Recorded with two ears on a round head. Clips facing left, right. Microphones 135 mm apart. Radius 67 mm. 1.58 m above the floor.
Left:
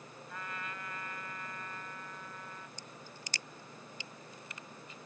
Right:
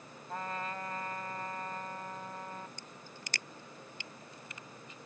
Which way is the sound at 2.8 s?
50° right (ahead or behind).